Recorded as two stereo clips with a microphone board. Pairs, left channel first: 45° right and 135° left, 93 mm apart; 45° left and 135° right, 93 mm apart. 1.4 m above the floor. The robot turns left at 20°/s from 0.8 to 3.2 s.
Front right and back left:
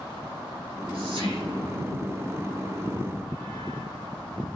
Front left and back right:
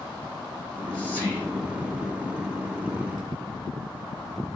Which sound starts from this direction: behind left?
Whispering, at 0.6 s.